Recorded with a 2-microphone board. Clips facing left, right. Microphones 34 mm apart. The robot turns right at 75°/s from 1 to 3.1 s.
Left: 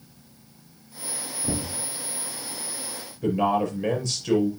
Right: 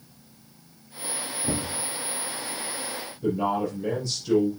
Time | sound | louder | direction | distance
1.4 | knocking | even | 20° right | 3 m
3.2 | a man speaking | left 3 dB | 75° left (ahead or behind) | 4.5 m